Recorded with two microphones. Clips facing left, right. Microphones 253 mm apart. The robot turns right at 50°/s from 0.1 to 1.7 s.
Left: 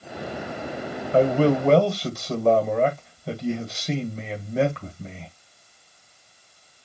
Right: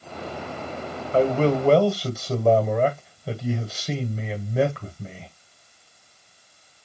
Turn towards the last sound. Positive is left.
turn(degrees=0)  # may be behind; listen again after turning